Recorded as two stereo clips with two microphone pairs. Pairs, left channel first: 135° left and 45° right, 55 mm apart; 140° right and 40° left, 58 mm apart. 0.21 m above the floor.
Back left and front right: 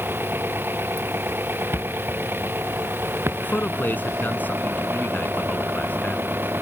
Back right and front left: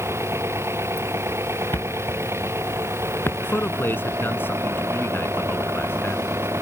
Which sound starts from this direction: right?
A thud, at 1.7 s.